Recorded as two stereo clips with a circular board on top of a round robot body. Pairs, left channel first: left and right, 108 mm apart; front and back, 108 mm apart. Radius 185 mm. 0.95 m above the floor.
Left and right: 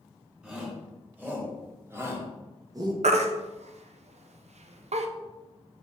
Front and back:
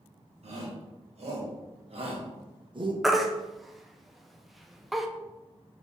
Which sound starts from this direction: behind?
A shout, at 0.4 s.